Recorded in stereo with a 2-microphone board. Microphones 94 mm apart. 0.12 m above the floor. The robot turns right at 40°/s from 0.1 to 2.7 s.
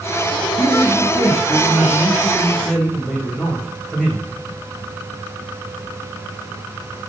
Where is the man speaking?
75° right, 6.5 m; by 4.3 s 10° left, 6.5 m.